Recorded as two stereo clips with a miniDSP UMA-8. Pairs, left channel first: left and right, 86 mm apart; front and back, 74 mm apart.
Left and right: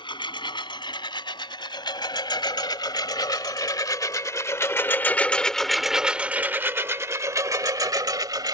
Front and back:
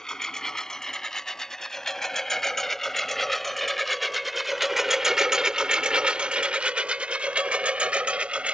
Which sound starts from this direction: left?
A lawn mower, at 0.0 s.